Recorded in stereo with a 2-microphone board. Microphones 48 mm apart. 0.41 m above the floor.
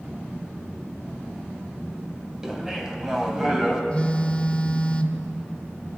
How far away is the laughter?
About 3 m.